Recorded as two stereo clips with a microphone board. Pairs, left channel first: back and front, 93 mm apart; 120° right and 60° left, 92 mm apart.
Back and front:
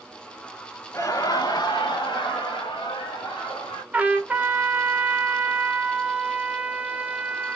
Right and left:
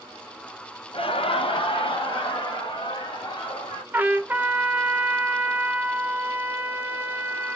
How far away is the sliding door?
No sliding door in this recording.